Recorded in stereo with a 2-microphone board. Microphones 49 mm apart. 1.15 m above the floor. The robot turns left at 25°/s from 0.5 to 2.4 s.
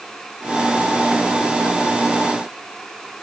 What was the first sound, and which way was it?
Only background noise.